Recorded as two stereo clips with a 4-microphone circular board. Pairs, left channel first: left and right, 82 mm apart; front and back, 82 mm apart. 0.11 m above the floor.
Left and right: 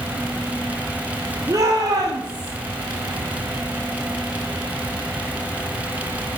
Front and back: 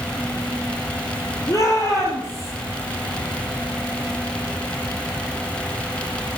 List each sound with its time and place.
1.5 s a shout: 40° right, 2.5 m; by 2.5 s 60° right, 3.5 m